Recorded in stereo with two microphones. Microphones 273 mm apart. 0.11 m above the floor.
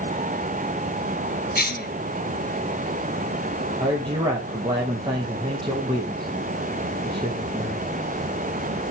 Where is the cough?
35° left (ahead or behind), 2.5 m.